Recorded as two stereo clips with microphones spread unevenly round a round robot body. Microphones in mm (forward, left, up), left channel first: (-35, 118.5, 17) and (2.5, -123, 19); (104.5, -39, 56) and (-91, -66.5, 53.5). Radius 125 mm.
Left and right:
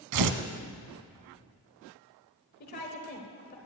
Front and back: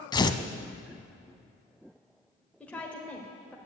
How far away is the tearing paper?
About 0.7 m.